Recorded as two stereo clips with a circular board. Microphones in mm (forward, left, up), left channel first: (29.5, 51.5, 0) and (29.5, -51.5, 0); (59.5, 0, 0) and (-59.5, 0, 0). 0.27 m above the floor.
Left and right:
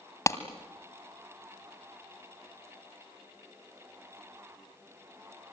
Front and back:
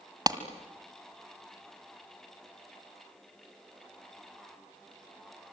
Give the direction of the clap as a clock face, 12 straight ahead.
7 o'clock.